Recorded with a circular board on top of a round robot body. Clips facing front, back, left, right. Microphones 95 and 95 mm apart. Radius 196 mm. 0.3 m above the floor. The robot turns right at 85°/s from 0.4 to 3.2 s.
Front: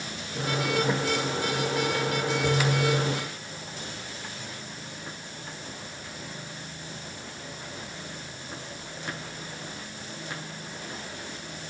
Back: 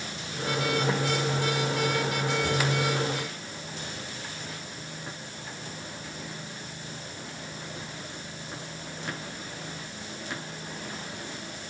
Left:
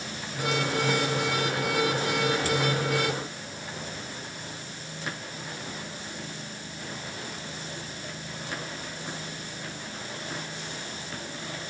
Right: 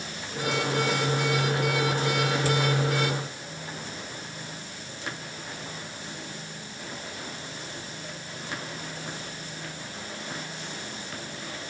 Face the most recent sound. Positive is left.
No sound to turn to.